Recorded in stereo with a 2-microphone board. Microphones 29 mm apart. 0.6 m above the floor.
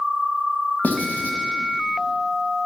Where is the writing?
90° left, 1.7 m.